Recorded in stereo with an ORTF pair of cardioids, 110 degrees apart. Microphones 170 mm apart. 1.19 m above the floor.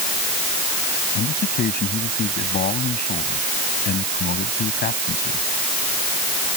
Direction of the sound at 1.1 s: 65° left.